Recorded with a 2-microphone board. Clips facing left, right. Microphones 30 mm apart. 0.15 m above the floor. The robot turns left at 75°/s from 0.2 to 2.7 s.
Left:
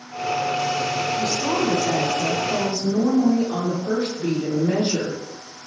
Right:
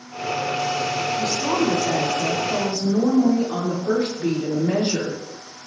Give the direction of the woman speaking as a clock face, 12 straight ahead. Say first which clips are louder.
Right 2 dB; 1 o'clock.